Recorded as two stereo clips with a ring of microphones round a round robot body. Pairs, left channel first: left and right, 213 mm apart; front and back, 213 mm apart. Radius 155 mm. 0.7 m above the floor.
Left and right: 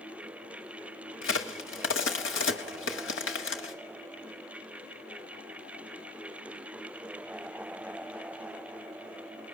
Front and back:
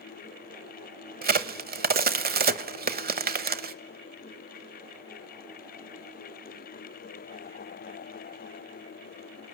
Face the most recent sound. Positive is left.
turn(degrees=135)